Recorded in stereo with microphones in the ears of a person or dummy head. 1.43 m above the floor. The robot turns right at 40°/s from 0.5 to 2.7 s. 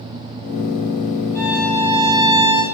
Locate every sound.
1.4 s a violin: 170° left, 8 m; by 2.6 s 140° right, 8 m